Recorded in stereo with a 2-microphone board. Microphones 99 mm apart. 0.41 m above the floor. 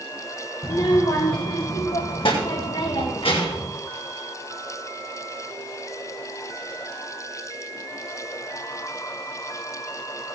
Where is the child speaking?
50° left (ahead or behind), 0.7 m; by 3.7 s 75° left (ahead or behind), 2.5 m.